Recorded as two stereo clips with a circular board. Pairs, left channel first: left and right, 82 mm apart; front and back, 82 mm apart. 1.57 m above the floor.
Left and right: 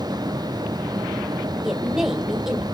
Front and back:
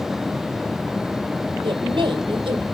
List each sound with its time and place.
1.6 s a woman speaking: 175° right, 1.5 m